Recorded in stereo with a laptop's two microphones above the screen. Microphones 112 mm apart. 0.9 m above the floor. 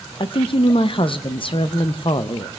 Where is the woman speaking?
50° left (ahead or behind), 0.5 m.